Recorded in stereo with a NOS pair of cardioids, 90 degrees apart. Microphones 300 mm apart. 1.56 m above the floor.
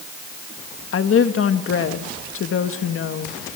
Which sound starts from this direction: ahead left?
A woman speaking, at 0.9 s.